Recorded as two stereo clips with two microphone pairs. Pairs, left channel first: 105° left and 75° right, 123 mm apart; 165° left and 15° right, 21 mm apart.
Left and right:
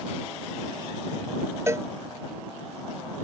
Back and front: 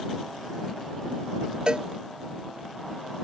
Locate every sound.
1.7 s a cowbell: 15° right